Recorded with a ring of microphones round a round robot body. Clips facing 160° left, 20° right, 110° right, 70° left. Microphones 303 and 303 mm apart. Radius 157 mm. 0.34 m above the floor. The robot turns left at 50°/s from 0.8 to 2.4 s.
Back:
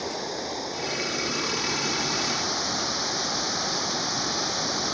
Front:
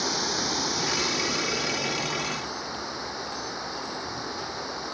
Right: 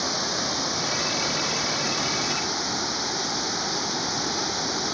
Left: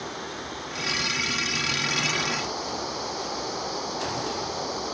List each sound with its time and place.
0.0 s running water: 85° right; by 4.9 s 165° right